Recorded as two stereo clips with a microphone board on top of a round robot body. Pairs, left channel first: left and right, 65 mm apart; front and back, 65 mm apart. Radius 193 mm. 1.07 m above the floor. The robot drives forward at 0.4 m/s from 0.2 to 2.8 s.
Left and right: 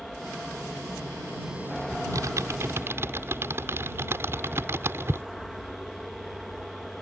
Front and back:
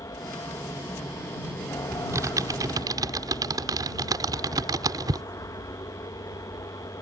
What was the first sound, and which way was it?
An aircraft, straight ahead.